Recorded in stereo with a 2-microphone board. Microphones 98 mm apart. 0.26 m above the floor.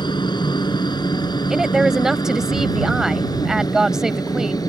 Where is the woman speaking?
5° right (ahead or behind).